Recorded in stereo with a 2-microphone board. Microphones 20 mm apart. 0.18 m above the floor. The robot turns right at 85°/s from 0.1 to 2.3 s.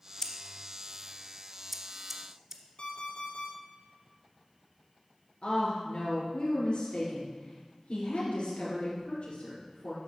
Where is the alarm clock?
70° left (ahead or behind), 3 m.